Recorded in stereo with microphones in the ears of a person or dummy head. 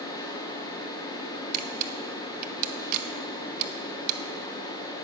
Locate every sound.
0.0 s a fan: 20° left (ahead or behind), 1.1 m
1.5 s a camera shutter: 50° right (ahead or behind), 0.7 m